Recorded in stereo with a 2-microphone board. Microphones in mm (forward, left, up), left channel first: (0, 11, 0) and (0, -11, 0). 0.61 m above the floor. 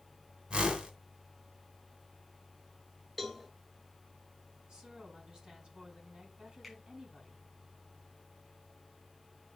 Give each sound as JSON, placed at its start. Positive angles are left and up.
{"t": 0.5, "sound": "a whoosh", "side_deg": -50, "distance_m": 1.8}
{"t": 3.2, "sound": "a cowbell", "side_deg": 0, "distance_m": 1.4}
{"t": 4.7, "sound": "a woman speaking", "side_deg": -35, "distance_m": 4.5}
{"t": 6.6, "sound": "a finger snap", "side_deg": 0, "distance_m": 4.5}